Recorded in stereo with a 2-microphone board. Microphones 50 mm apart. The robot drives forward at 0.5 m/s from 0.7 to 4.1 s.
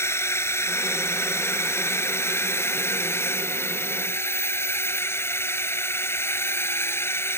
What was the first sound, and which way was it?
A drone, 60° left (ahead or behind).